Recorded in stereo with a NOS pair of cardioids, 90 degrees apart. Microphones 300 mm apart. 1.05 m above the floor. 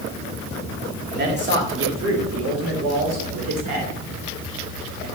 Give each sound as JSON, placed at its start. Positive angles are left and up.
{"t": 1.1, "sound": "a man speaking", "azimuth_deg": -30, "distance_m": 2.5}